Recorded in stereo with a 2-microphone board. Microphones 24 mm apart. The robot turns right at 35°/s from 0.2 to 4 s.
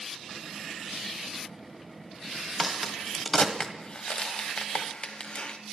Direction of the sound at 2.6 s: 5° right (ahead or behind).